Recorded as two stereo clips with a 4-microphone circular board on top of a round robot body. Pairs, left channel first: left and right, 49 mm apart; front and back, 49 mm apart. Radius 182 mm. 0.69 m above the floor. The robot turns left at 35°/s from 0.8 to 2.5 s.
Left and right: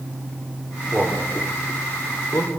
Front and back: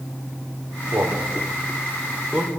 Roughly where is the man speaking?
Behind.